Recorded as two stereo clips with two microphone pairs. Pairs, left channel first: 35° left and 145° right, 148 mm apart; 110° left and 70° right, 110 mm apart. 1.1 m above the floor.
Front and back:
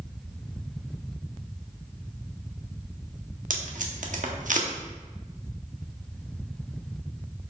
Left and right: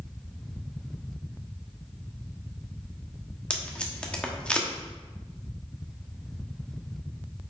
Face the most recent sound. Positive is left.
turn(degrees=-170)